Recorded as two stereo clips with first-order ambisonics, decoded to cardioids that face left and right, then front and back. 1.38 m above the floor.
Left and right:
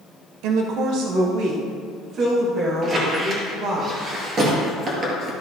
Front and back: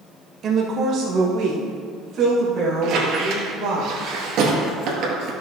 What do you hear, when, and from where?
0.4 s a woman speaking: 120° right, 0.6 m; by 3.8 s 135° right, 2.5 m
2.8 s a squeak: 145° right, 2 m